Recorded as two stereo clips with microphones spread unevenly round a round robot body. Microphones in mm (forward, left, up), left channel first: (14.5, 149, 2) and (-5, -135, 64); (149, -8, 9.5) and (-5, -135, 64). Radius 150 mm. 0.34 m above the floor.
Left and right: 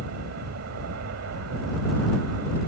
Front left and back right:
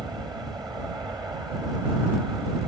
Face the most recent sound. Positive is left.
turn(degrees=-65)